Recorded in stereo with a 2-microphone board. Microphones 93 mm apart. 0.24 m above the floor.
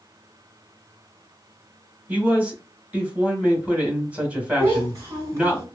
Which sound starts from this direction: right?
A child speaking, at 4.6 s.